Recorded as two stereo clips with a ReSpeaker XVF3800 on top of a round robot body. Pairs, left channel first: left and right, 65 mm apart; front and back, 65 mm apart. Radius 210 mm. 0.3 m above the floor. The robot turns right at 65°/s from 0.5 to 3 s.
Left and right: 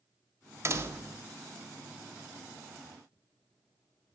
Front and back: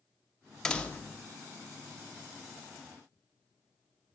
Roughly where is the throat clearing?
No throat clearing in this recording.